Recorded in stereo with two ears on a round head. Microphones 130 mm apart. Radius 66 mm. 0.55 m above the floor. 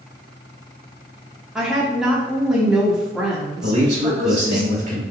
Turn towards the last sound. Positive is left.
turn(degrees=-55)  # may be behind; listen again after turning